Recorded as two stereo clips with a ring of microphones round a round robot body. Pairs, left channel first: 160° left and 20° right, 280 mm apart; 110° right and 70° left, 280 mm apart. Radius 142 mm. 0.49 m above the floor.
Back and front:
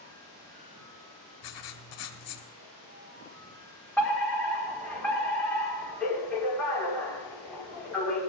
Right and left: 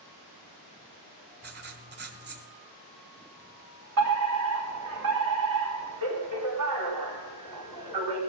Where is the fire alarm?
75° left, 5 m.